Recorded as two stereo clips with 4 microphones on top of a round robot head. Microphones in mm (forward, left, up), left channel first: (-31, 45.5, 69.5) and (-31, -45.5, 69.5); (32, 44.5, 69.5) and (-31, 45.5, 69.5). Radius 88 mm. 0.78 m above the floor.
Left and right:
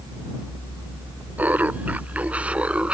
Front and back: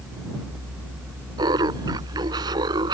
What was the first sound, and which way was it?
Laughter, 165° right.